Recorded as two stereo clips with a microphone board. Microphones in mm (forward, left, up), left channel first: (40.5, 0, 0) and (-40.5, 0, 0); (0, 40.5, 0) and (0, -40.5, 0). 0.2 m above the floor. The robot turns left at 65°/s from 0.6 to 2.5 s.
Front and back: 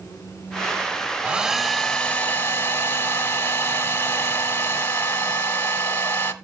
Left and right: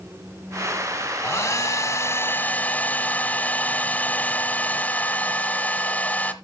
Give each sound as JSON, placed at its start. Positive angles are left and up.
{"t": 1.2, "sound": "a hair dryer", "azimuth_deg": 120, "distance_m": 1.1}